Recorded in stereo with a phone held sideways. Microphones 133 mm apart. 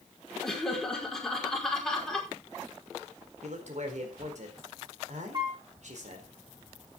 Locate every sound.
0.4 s laughter: 5° left (ahead or behind), 5 m
3.4 s a man speaking: 65° right (ahead or behind), 4 m
5.3 s a piano: 35° right (ahead or behind), 7 m